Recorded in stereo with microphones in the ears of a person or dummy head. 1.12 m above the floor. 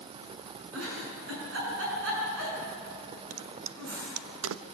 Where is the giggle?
80° right, 6.5 m.